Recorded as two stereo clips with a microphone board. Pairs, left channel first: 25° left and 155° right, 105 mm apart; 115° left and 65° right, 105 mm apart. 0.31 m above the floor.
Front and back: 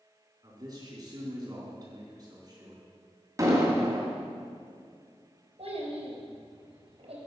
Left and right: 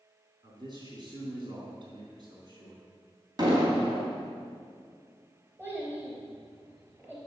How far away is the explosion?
About 2.5 m.